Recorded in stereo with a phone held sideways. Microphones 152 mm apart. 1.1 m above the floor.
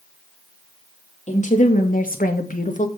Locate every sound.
1.3 s a woman speaking: 50° left (ahead or behind), 2 m; by 2.9 s 55° left (ahead or behind), 1.5 m